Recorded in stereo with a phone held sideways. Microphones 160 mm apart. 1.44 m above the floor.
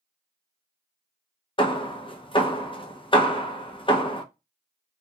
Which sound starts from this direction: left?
Hammering, at 1.6 s.